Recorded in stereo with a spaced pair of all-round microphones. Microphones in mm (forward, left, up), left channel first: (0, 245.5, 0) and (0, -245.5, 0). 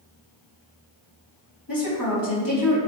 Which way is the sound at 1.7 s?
40° left (ahead or behind).